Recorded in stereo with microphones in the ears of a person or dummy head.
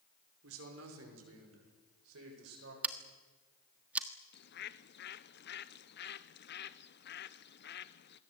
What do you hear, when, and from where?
0.4 s a man speaking: 80° right, 5.5 m; by 2.7 s 75° right (ahead or behind), 8 m
2.8 s scissors: 5° right (ahead or behind), 1.3 m
4.3 s a bird: 55° left (ahead or behind), 0.9 m